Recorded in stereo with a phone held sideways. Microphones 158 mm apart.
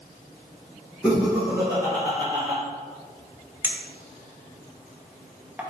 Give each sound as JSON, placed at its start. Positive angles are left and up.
{"t": 1.0, "sound": "laughter", "side_deg": -5, "distance_m": 1.4}
{"t": 3.6, "sound": "a clink", "side_deg": -10, "distance_m": 0.5}